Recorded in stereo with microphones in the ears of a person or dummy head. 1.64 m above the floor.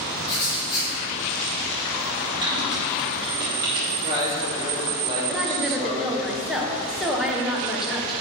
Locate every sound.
0.3 s writing: 25° left (ahead or behind), 2.5 m
2.4 s typing on a keyboard: 20° right (ahead or behind), 1.1 m
3.9 s a man speaking: 25° right (ahead or behind), 3 m
5.3 s a woman speaking: 5° right (ahead or behind), 1.2 m